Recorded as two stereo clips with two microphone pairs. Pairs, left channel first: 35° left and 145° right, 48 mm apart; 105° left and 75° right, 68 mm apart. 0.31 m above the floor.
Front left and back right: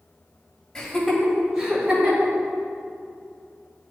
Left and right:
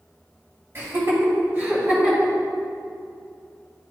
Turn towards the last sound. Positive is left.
turn(degrees=-145)